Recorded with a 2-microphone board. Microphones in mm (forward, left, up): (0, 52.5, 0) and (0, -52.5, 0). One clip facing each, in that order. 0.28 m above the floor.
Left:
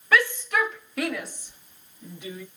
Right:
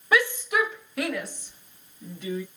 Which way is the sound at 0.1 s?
20° right (ahead or behind).